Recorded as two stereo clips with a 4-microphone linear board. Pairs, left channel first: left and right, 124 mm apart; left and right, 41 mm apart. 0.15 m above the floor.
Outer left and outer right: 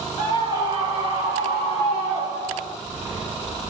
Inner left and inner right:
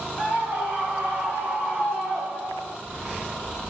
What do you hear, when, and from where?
0.2 s a scream: 25° right (ahead or behind), 1.8 m